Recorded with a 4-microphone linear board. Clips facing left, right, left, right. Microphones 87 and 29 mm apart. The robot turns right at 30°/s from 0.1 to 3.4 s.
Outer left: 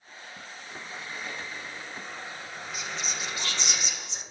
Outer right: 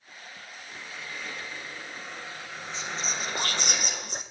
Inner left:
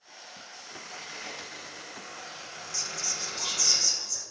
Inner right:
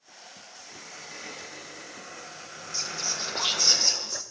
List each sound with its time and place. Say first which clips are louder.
0.7 s a squeak: outer left 1 dB, inner left 2 dB; 145° left, 8 m; by 3.7 s 135° right, 8 m
2.7 s whispering: outer right 2 dB, inner right 3 dB; 30° right (ahead or behind), 1.1 m; by 4.2 s 45° right (ahead or behind), 1.1 m